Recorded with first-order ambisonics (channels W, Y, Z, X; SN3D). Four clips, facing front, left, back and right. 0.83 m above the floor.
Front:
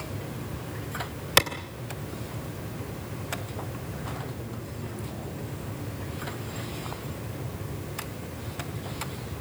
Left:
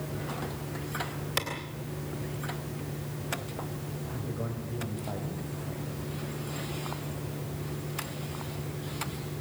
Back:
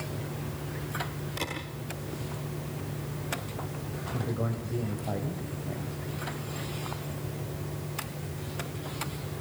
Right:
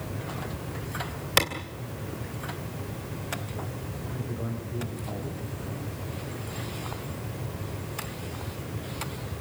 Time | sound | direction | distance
1.4 | a clap | 30° right | 3 m
4.1 | a man speaking | 170° left | 4.5 m